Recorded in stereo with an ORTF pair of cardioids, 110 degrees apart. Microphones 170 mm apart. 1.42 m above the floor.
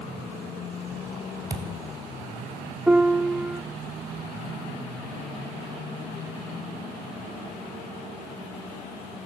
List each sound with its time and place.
1.5 s a thud: 25° right, 3 m
2.9 s a piano: 10° right, 0.6 m